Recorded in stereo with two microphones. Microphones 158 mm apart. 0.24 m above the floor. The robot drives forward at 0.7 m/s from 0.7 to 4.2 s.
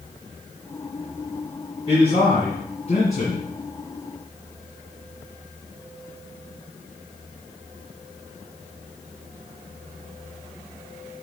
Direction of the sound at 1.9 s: 35° left (ahead or behind).